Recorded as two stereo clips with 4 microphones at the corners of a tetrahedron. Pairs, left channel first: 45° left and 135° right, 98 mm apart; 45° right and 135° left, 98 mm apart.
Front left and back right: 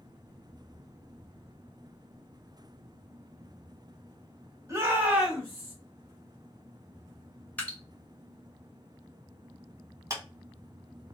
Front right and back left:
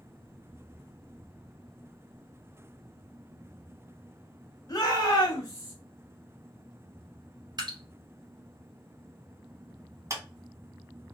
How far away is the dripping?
About 1.1 m.